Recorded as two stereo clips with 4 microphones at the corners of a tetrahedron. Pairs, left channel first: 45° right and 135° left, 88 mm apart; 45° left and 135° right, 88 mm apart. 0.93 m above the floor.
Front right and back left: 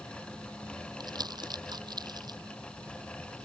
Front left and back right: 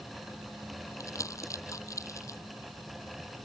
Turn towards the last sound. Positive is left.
turn(degrees=100)